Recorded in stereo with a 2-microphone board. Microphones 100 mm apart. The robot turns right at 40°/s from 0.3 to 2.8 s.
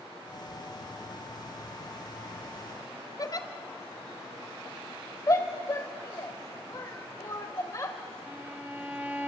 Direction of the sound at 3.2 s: 40° left (ahead or behind).